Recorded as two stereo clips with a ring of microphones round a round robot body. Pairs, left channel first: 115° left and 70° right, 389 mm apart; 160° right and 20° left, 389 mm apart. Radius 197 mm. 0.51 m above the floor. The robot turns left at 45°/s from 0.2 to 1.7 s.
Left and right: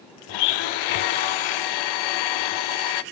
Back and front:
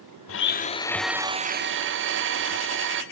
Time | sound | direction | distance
0.3 | a blender | 145° left | 0.8 m